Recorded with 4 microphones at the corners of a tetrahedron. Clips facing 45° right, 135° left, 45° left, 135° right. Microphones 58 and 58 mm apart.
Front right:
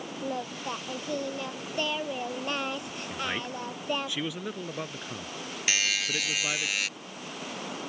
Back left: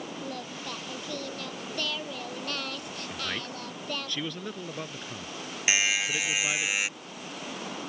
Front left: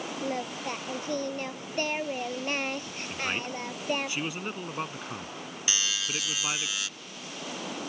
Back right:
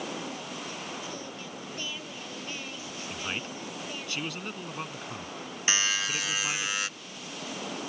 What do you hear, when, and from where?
0.2 s singing: 20° left
3.1 s a man speaking: 20° left
5.7 s a buzzer: 165° right